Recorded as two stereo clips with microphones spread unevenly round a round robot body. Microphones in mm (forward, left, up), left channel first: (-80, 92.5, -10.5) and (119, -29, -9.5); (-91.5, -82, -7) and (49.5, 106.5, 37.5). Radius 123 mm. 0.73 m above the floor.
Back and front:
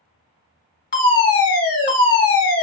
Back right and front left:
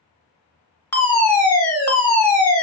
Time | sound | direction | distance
0.9 | a fire alarm | 170° left | 1.8 m